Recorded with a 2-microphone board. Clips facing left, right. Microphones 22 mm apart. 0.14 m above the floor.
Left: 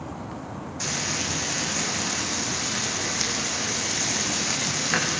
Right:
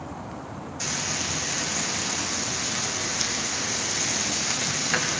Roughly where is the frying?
Centre.